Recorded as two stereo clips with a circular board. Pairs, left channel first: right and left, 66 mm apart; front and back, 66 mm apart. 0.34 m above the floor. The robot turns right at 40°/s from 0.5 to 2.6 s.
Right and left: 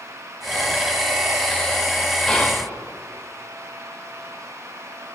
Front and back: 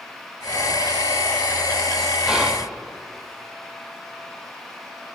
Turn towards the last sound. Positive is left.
turn(degrees=-110)